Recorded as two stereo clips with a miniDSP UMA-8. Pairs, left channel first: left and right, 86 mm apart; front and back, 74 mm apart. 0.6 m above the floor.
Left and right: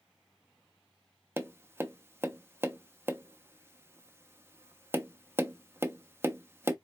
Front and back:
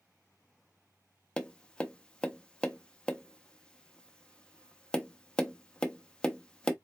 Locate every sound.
1.4 s tapping: 65° right, 0.6 m